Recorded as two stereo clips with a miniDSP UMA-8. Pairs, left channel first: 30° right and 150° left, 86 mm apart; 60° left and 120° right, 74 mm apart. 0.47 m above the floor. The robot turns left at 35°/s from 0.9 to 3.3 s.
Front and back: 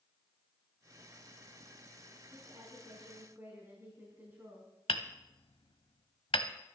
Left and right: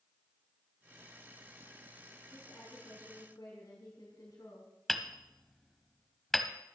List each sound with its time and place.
2.3 s a woman speaking: 120° left, 3.5 m; by 4.7 s 85° left, 3.5 m
4.9 s hammering: 25° right, 1.1 m